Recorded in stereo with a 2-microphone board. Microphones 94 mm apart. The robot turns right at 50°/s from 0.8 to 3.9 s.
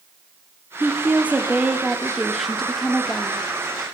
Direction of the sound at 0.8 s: 20° right (ahead or behind).